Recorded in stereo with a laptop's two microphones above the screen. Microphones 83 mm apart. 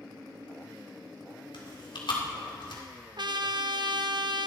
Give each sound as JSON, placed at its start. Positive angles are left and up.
{"t": 1.5, "sound": "chewing", "side_deg": 75, "distance_m": 2.0}
{"t": 3.2, "sound": "a trumpet", "side_deg": -65, "distance_m": 0.7}